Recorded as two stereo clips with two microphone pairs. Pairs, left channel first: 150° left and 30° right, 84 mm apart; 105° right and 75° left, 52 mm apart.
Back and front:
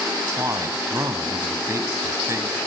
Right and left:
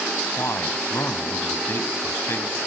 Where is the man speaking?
85° right, 2.5 m.